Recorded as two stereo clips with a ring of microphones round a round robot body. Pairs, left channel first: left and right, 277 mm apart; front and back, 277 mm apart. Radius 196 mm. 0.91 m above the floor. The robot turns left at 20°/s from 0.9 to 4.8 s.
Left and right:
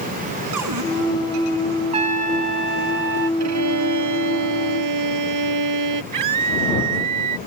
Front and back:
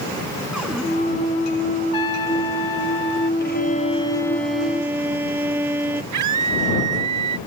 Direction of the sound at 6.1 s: 130° right.